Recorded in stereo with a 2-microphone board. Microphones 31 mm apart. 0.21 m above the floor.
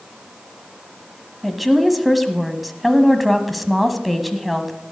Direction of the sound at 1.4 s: Centre (ahead or behind).